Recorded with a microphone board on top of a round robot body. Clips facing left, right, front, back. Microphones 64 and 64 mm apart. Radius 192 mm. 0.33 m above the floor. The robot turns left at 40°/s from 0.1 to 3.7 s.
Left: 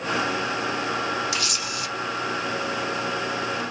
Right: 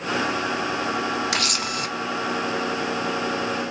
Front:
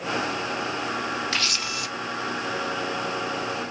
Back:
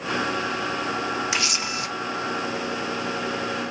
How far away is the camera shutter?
About 0.8 m.